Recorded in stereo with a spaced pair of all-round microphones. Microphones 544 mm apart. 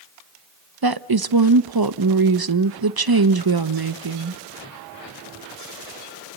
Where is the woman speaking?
40° right (ahead or behind), 0.9 m.